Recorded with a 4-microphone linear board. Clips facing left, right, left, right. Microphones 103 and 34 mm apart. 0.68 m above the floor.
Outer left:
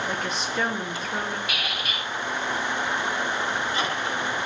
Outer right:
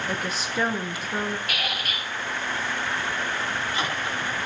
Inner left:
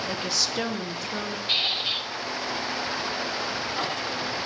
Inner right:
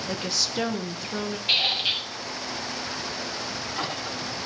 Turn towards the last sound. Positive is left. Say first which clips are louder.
# even, inner right 2 dB
turn(degrees=-55)  # may be behind; listen again after turning